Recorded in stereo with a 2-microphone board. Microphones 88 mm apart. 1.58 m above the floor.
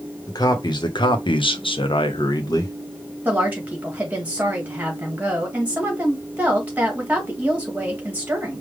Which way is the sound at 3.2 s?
15° right (ahead or behind).